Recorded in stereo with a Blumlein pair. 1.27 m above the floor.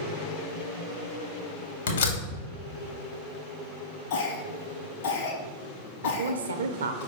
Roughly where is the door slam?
Ahead left.